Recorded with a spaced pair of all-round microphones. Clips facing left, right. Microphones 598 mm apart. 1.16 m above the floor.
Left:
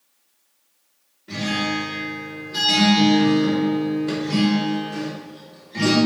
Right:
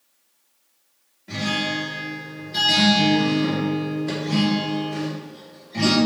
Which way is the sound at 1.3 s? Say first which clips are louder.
Left 2 dB; 15° right (ahead or behind).